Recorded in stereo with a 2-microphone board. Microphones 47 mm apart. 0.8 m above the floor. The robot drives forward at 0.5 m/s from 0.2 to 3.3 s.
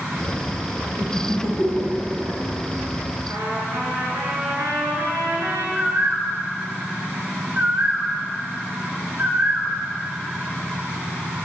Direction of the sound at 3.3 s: 80° right.